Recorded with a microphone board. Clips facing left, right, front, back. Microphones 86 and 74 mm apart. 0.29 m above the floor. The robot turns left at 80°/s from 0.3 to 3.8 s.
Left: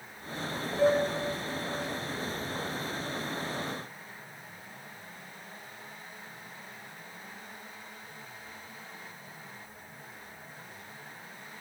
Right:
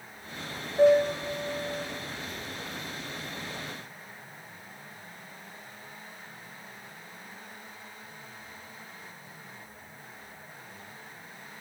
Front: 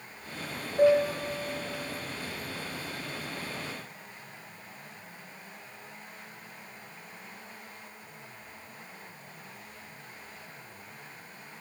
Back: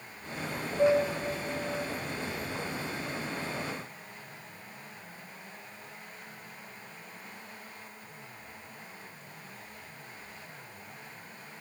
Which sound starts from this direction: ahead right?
A piano, at 0.8 s.